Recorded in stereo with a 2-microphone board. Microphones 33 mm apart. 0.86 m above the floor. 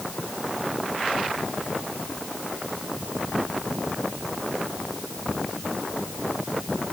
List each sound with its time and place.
Only background noise.